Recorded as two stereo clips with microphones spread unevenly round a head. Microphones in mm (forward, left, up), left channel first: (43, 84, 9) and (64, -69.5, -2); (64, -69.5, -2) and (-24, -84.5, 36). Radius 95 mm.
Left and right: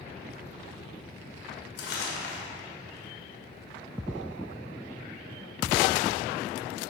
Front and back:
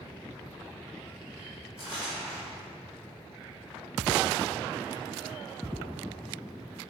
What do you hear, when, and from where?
1.8 s crumpling: 110° left, 1.4 m